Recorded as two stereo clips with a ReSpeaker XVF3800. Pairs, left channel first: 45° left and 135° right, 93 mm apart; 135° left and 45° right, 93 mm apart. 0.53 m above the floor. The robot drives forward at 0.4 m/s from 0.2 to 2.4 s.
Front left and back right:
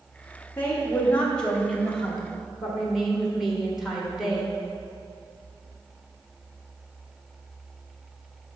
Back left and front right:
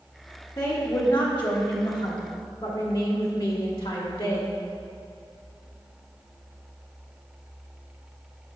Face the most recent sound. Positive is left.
turn(degrees=140)